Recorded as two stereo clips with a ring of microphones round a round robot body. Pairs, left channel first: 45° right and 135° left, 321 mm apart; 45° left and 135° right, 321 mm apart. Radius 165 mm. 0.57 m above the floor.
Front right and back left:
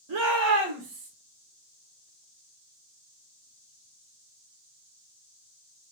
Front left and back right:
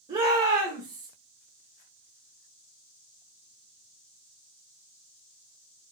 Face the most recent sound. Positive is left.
turn(degrees=175)